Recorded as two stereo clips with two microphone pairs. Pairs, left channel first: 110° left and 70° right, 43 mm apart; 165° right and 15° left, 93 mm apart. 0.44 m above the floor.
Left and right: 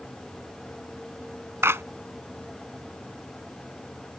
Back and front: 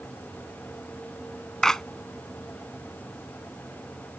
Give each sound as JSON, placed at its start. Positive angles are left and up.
{"t": 1.6, "sound": "a clap", "azimuth_deg": -75}